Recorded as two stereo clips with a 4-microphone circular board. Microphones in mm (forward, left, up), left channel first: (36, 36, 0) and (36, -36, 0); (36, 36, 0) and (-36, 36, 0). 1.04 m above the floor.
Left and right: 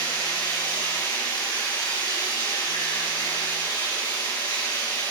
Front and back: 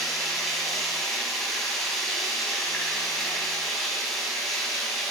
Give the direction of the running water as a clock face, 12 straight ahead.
9 o'clock.